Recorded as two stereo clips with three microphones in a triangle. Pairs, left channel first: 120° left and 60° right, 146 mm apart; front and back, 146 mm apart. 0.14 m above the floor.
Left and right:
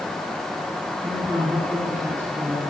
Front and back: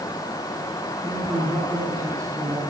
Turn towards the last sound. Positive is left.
turn(degrees=-130)